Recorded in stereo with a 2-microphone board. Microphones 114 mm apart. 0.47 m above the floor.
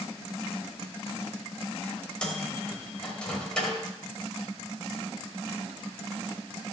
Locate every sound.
2.2 s a microwave: 10° left (ahead or behind), 2 m